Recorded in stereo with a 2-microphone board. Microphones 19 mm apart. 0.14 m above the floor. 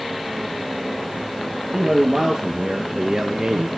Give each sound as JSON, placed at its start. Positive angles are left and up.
{"t": 1.7, "sound": "a man speaking", "side_deg": -15, "distance_m": 3.5}